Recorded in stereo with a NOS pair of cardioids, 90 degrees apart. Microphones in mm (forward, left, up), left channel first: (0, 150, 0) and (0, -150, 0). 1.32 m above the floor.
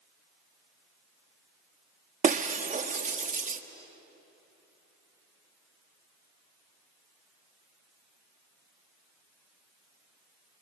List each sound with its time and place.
2.2 s breaking glass: 25° right, 1.4 m